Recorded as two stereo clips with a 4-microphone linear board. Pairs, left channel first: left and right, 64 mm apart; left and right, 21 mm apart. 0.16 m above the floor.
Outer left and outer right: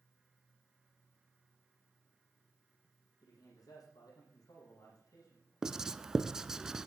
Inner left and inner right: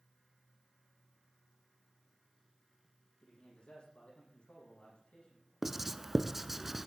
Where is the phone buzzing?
I don't hear a phone buzzing.